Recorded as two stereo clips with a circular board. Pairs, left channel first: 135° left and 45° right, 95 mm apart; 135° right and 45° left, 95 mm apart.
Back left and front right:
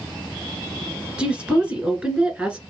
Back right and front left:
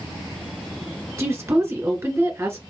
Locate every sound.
1.2 s a woman speaking: 20° left, 1.5 m